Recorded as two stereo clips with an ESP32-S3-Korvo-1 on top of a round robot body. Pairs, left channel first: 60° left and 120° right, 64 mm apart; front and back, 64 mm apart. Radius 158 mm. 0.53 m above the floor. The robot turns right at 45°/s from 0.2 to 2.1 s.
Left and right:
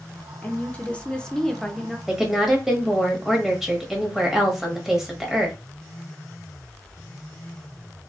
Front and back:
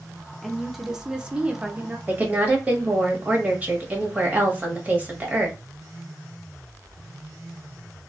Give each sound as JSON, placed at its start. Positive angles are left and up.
{"t": 0.4, "sound": "a woman speaking", "azimuth_deg": 85, "distance_m": 0.7}
{"t": 2.1, "sound": "a woman speaking", "azimuth_deg": 160, "distance_m": 1.1}